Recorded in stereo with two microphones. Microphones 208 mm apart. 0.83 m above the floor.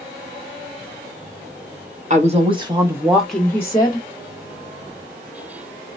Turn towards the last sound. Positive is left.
turn(degrees=30)  # may be behind; listen again after turning